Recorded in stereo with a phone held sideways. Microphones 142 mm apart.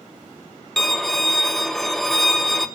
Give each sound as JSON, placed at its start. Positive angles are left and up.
{"t": 0.8, "sound": "a violin", "side_deg": 0, "distance_m": 0.8}